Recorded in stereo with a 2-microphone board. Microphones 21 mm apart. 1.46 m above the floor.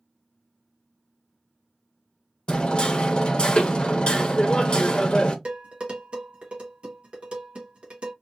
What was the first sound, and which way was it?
Hammering, 50° left (ahead or behind).